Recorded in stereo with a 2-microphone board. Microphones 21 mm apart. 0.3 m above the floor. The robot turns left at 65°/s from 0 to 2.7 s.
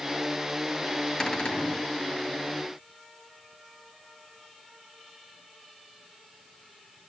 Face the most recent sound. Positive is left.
turn(degrees=35)